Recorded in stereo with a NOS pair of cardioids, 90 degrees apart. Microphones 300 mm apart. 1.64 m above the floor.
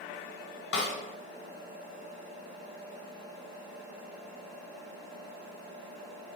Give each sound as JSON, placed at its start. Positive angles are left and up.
{"t": 0.7, "sound": "a snare drum", "azimuth_deg": 45, "distance_m": 1.2}